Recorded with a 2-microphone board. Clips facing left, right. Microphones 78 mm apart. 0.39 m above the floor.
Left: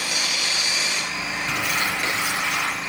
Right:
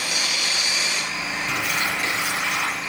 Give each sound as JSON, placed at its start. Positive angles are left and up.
{"t": 1.5, "sound": "crumpling", "side_deg": 70, "distance_m": 7.0}